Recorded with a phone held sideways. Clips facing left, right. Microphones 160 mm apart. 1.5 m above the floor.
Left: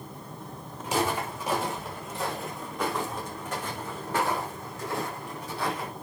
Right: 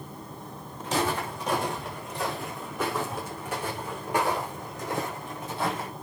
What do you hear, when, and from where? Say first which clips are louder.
0.8 s footsteps: even; 10° left (ahead or behind), 5.5 m; by 5.9 s 25° right (ahead or behind), 5.5 m